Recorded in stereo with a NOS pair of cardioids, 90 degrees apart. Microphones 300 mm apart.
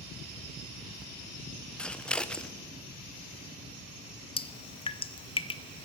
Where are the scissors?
5° left, 0.7 m.